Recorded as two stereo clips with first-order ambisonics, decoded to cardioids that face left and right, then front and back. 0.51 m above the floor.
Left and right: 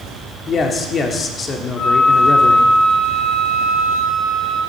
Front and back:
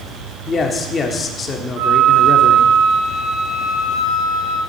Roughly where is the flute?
Behind left.